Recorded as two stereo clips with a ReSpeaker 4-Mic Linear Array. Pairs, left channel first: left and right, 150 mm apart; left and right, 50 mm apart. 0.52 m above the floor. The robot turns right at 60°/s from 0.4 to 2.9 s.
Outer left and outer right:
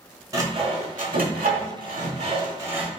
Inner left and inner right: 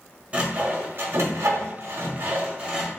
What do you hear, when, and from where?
0.3 s sawing: 25° right (ahead or behind), 0.9 m; by 2.9 s 5° right (ahead or behind), 0.9 m